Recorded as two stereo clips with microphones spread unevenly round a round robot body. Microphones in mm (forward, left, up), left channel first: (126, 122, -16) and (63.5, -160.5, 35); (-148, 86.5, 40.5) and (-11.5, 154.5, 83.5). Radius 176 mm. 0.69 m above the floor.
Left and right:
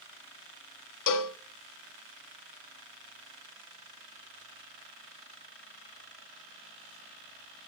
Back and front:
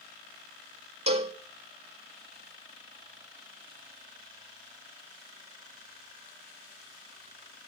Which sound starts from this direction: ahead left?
A cowbell, at 1.1 s.